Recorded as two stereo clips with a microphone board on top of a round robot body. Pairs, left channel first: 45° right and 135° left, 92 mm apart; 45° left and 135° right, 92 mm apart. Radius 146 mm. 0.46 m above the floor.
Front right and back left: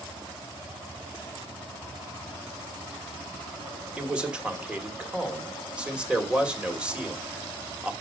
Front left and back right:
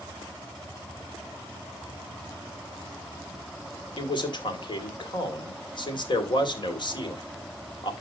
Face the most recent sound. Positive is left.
turn(degrees=60)